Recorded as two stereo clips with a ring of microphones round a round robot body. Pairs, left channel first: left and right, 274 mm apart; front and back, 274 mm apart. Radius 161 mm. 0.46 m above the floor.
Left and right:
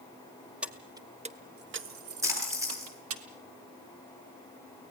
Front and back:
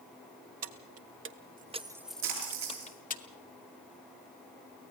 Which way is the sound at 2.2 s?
170° right.